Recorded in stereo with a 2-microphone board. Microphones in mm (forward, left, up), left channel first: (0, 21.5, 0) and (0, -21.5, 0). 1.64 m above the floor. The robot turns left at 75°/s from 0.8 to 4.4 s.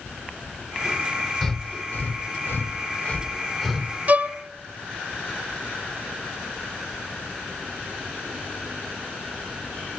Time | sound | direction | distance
1.4 | breathing | 5° left (ahead or behind) | 0.7 m
4.1 | a violin | 40° right (ahead or behind) | 0.5 m